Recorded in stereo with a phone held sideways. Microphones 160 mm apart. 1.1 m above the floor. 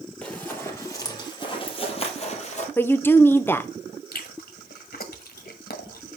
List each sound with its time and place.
0.2 s running footsteps: 10° left (ahead or behind), 1.9 m; by 2.7 s 50° left (ahead or behind), 2 m
2.8 s a woman speaking: 15° left (ahead or behind), 0.6 m
4.1 s chewing: 80° left, 1.3 m